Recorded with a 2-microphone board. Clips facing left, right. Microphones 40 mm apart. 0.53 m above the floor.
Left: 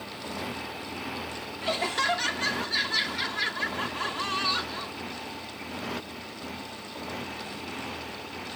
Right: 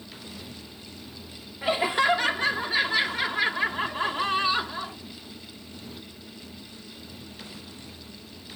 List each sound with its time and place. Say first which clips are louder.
0.0 s a motorcycle: left 7 dB; 90° left
1.6 s laughter: right 4 dB; 20° right (ahead or behind)